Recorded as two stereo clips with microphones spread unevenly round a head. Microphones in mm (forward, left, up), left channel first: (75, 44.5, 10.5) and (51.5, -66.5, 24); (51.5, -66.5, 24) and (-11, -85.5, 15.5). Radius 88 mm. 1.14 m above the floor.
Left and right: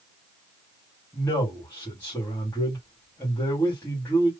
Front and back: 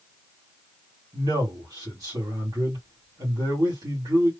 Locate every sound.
1.1 s a man speaking: 155° left, 2 m